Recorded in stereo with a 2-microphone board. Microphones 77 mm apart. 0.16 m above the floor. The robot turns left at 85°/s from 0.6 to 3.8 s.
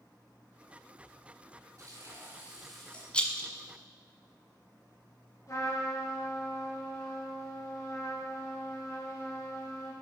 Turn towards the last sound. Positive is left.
turn(degrees=45)  # may be behind; listen again after turning